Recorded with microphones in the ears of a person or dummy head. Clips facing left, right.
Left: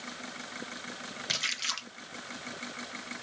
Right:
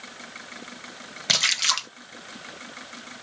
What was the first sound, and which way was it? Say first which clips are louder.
A splash: right 9 dB; 70° right (ahead or behind).